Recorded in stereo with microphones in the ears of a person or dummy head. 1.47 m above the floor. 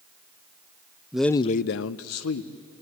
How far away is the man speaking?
About 0.7 m.